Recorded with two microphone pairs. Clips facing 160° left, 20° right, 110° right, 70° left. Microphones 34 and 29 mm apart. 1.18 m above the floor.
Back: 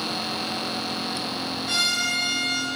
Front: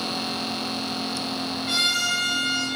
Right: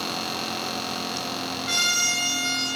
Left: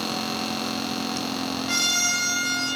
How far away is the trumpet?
About 2.5 m.